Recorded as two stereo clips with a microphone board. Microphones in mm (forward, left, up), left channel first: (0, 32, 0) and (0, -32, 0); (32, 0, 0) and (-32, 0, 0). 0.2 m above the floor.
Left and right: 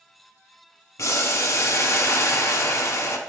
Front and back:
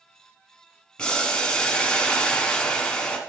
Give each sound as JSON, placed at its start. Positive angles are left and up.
{"t": 1.0, "sound": "boiling", "azimuth_deg": 70, "distance_m": 0.9}